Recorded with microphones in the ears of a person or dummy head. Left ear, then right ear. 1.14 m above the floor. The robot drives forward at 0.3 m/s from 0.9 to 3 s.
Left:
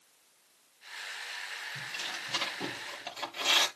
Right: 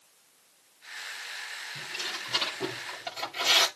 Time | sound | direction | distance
1.8 | tearing paper | 5° left (ahead or behind) | 6.5 m